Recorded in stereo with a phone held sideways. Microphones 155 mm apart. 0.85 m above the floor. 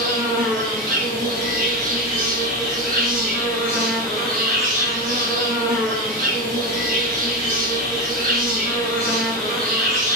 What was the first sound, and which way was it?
An insect, 60° right (ahead or behind).